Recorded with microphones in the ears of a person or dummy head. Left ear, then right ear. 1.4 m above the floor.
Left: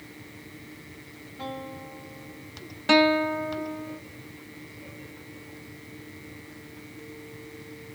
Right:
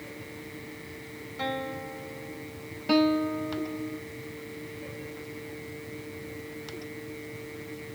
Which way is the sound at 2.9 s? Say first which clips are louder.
Left 4 dB; 50° left (ahead or behind).